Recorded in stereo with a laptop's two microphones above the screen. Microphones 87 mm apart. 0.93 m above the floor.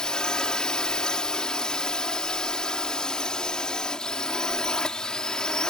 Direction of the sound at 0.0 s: 5° left (ahead or behind).